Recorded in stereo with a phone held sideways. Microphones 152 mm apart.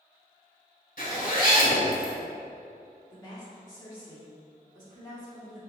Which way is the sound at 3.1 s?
30° left (ahead or behind).